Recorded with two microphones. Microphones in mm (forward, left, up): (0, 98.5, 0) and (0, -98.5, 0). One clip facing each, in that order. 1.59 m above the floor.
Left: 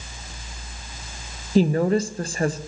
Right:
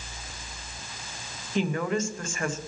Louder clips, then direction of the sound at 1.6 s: Left 8 dB; 40° left (ahead or behind).